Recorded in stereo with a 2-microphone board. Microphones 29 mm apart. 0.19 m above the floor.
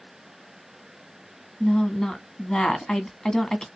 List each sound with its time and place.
1.6 s a woman speaking: 25° left (ahead or behind), 1.6 m